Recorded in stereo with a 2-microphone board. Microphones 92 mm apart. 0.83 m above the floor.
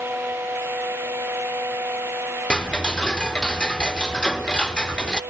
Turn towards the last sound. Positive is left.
turn(degrees=10)  # may be behind; listen again after turning